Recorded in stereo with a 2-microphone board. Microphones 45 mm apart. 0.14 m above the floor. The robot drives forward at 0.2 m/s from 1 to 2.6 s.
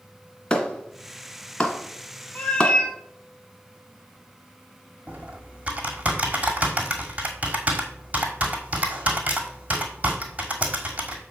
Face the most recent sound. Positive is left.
turn(degrees=-30)  # may be behind; listen again after turning